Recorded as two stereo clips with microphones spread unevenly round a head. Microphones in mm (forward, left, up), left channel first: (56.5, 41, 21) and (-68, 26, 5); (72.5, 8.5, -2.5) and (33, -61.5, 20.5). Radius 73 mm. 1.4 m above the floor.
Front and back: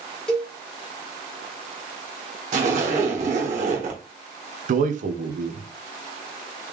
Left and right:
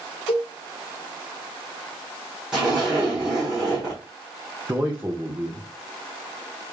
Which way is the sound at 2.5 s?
170° left.